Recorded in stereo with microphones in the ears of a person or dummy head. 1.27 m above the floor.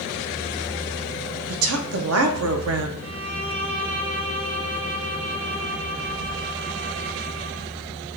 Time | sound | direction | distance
1.5 | a woman speaking | 75° right (ahead or behind) | 0.8 m
3.0 | a violin | 55° right (ahead or behind) | 1.3 m